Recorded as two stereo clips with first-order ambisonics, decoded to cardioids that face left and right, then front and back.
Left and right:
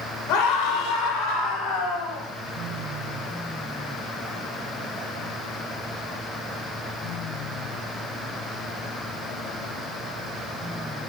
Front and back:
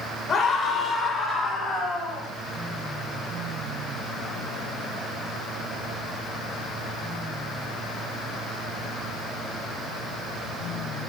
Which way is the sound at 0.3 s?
70° left.